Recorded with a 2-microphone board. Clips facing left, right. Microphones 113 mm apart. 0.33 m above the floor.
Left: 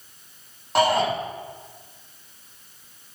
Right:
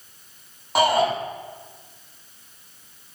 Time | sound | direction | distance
0.8 | a shout | centre (ahead or behind) | 8 m